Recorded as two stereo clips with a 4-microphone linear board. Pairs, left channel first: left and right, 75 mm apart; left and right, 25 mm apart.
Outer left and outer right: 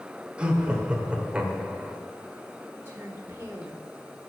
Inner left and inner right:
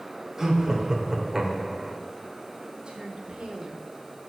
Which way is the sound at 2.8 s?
30° right (ahead or behind).